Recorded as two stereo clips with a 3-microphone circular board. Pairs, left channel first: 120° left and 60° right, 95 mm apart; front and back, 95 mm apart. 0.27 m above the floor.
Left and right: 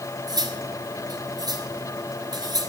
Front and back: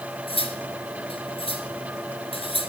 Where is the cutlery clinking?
15° right, 2.5 m.